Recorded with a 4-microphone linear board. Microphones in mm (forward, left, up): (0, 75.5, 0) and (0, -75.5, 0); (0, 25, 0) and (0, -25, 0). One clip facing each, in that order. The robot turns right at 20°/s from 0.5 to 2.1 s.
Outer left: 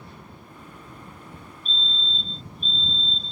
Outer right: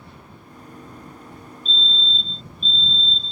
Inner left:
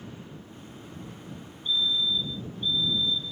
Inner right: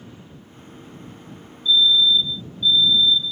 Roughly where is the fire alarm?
Left.